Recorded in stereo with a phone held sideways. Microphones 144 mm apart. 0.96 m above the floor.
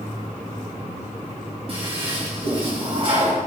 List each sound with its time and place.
1.7 s a toilet flushing: 40° right (ahead or behind), 3 m